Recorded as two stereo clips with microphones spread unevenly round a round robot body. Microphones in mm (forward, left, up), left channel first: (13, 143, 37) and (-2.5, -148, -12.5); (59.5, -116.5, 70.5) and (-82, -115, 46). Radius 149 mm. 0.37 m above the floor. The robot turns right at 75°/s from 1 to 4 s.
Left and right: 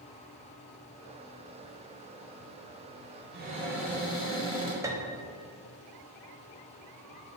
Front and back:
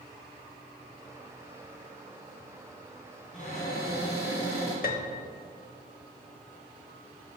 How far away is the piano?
About 0.8 m.